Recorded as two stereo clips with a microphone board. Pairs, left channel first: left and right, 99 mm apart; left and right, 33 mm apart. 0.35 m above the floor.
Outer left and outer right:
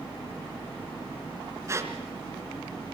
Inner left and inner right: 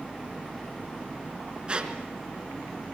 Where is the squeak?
30° right (ahead or behind), 3 m.